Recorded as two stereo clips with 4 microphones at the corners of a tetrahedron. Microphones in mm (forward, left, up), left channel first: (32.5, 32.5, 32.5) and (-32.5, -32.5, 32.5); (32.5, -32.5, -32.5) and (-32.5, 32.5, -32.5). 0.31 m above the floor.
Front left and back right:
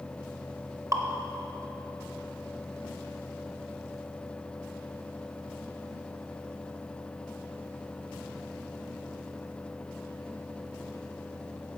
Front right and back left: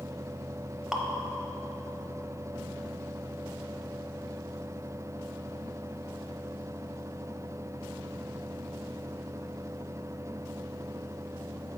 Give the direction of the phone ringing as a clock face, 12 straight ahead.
No phone ringing in this recording.